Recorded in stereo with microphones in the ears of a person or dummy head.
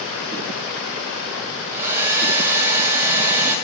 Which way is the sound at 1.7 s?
10° right (ahead or behind).